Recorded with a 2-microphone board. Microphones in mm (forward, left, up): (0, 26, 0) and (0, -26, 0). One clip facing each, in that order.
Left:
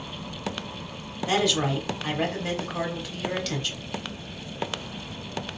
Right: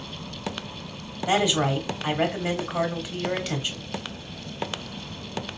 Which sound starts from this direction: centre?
A woman speaking, at 1.3 s.